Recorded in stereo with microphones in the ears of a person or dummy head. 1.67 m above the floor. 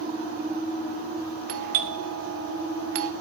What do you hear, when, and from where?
1.5 s a doorbell: 60° right (ahead or behind), 0.5 m